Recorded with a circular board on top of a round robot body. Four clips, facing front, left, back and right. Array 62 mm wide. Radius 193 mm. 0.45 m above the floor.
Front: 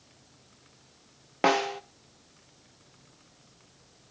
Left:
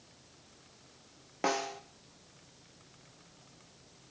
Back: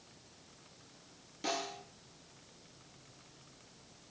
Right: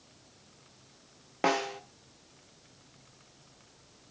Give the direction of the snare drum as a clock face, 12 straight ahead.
12 o'clock.